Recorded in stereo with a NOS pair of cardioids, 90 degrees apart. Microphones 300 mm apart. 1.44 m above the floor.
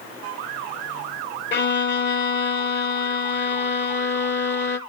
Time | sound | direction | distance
1.5 | a violin | 40° left | 1.0 m